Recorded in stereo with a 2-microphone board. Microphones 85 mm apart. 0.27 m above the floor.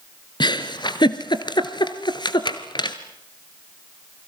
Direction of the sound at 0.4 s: 60° left (ahead or behind).